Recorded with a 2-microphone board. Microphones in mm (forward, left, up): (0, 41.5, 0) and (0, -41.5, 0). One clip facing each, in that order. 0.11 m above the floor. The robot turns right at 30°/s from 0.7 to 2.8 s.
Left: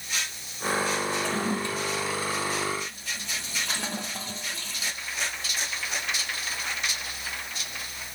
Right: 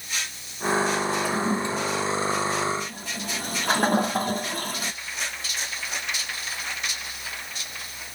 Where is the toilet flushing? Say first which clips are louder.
Right 3 dB; 10° right (ahead or behind), 0.6 m; by 4.9 s 55° right (ahead or behind), 0.6 m.